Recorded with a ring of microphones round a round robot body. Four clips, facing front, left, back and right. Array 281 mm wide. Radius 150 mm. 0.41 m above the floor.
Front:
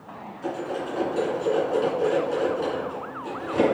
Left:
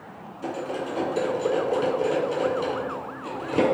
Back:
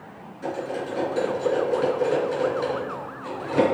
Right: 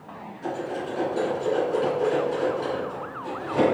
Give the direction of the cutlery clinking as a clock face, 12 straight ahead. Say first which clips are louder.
Even, back 1 dB; 8 o'clock.